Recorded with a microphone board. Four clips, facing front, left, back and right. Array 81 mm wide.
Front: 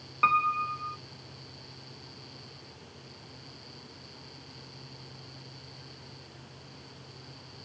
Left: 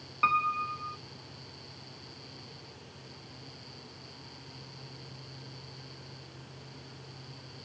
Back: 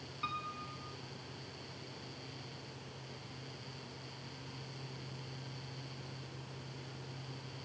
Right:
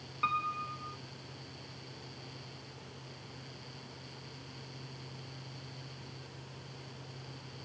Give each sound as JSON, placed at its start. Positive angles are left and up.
{"t": 0.2, "sound": "a piano", "azimuth_deg": 25}